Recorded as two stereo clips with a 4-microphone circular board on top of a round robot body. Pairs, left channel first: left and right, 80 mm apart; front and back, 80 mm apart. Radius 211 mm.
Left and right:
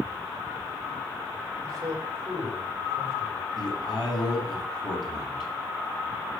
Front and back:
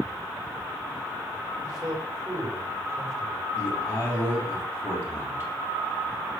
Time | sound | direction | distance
1.6 | a man speaking | 140° right | 4.5 m
3.6 | a man speaking | 55° left | 5.5 m